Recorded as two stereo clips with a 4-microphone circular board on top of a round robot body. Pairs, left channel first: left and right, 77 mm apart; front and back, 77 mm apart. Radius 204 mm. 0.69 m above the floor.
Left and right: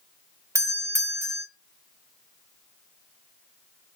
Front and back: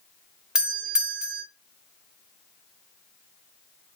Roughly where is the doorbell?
Right.